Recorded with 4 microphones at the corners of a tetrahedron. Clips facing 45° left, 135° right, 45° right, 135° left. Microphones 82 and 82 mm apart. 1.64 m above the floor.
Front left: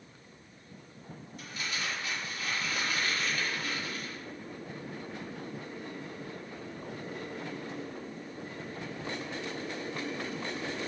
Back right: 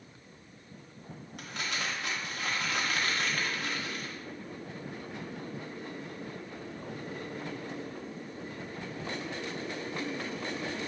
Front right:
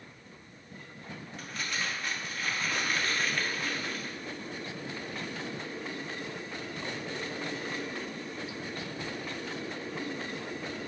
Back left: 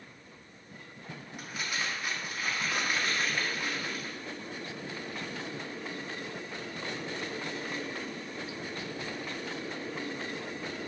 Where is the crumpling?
150° right, 1.3 m.